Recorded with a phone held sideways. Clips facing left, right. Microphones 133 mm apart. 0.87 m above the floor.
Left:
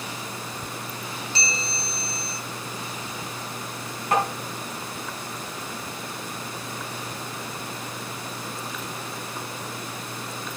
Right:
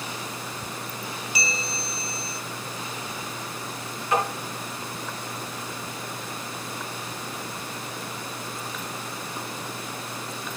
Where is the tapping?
55° left (ahead or behind), 4.5 m.